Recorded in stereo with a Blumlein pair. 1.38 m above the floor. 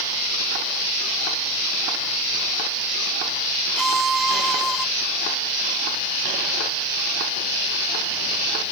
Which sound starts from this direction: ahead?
A violin, at 3.8 s.